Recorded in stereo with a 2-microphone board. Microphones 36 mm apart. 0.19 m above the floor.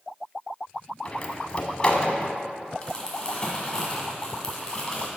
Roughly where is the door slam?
Left.